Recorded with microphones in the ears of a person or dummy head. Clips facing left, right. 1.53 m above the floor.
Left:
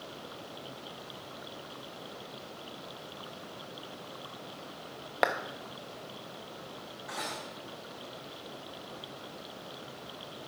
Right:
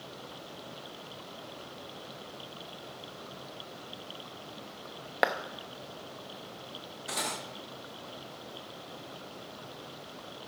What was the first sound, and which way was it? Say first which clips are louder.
A clap: even; centre (ahead or behind).